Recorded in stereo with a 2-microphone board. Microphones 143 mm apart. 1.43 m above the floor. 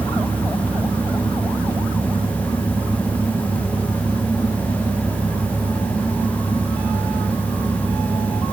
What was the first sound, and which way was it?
Only background noise.